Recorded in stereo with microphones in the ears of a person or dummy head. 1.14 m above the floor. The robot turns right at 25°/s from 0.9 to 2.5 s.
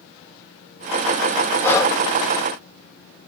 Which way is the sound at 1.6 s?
15° left (ahead or behind).